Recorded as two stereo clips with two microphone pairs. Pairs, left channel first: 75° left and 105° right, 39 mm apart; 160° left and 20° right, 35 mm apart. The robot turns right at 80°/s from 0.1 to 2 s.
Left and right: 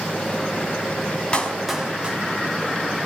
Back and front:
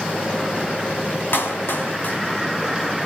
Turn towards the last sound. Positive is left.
turn(degrees=-170)